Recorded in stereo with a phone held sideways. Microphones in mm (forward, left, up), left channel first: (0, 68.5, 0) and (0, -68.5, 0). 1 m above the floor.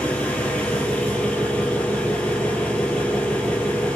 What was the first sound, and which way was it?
An engine running, 10° left (ahead or behind).